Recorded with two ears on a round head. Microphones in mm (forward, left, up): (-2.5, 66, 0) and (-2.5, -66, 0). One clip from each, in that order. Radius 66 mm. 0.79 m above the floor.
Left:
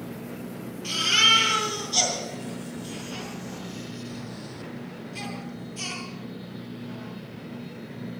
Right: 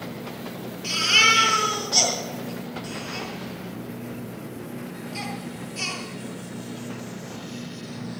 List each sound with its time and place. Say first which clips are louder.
0.8 s a baby crying: right 2 dB; 80° right, 10 m